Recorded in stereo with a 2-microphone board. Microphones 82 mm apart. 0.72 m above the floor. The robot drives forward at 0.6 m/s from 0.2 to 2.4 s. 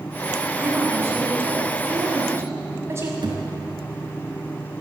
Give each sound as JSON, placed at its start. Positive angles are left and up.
{"t": 0.6, "sound": "a woman speaking", "side_deg": -30, "distance_m": 6.0}
{"t": 3.2, "sound": "a thud", "side_deg": -65, "distance_m": 4.5}